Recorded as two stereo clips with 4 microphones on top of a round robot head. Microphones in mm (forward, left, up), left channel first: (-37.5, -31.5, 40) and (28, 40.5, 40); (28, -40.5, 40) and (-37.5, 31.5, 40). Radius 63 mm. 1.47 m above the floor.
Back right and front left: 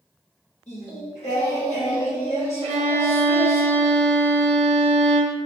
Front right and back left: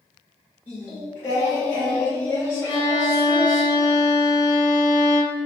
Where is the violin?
10° left, 0.5 m.